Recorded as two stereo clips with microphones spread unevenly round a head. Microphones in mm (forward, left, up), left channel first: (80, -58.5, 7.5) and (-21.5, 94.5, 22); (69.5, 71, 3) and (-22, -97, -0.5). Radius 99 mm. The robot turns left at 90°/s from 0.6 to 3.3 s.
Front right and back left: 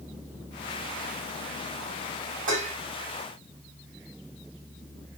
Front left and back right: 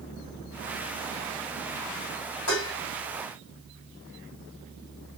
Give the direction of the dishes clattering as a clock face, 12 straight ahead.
9 o'clock.